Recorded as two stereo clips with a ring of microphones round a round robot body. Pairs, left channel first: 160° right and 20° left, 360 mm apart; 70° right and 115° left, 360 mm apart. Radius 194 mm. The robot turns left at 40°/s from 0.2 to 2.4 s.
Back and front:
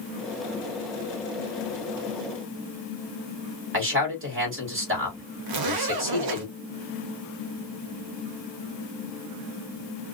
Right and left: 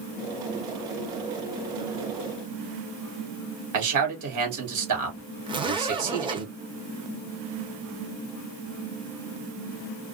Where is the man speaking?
75° left, 1.9 m.